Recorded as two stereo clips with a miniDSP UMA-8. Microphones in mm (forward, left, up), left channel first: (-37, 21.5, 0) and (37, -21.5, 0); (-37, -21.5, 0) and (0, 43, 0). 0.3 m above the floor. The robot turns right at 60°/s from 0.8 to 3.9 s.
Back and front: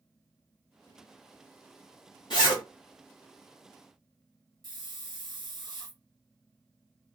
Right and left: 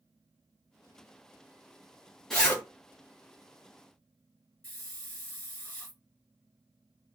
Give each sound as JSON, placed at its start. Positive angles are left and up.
{"t": 2.3, "sound": "a zipper", "azimuth_deg": 155, "distance_m": 1.6}
{"t": 4.6, "sound": "a hiss", "azimuth_deg": -55, "distance_m": 1.0}